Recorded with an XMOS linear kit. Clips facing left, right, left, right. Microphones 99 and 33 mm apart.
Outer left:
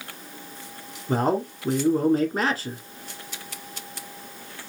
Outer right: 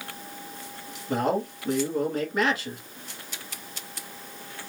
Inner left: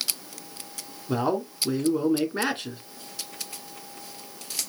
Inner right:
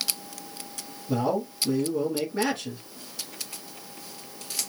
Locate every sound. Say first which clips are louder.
1.1 s a man speaking: outer left 2 dB, even; 40° left (ahead or behind), 1.7 m